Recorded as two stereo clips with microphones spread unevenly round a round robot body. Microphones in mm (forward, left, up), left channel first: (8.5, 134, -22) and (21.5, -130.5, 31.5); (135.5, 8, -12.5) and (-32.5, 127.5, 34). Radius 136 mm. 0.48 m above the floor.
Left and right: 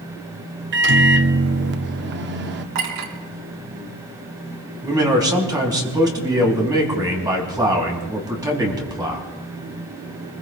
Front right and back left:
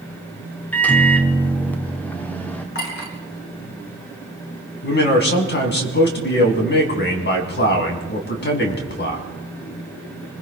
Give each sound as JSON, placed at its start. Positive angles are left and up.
{"t": 0.7, "sound": "a microwave", "azimuth_deg": -80, "distance_m": 0.8}
{"t": 2.8, "sound": "a clink", "azimuth_deg": -85, "distance_m": 3.0}
{"t": 4.8, "sound": "a man speaking", "azimuth_deg": -10, "distance_m": 3.5}